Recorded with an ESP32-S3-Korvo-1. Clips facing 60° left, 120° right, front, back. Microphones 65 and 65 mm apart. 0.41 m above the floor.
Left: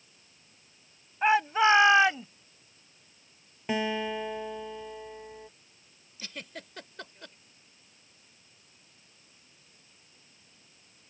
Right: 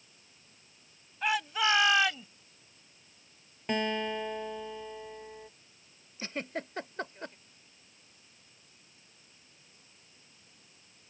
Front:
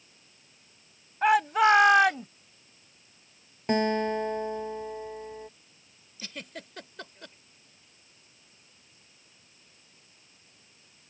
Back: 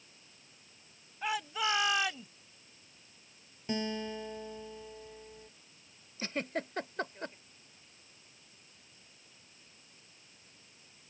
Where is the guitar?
25° right.